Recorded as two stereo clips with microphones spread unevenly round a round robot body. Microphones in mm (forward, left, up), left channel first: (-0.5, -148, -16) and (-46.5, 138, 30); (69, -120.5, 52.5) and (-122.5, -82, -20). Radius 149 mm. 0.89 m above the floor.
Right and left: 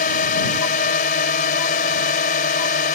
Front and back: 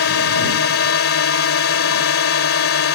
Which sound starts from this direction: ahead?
A drone, at 0.0 s.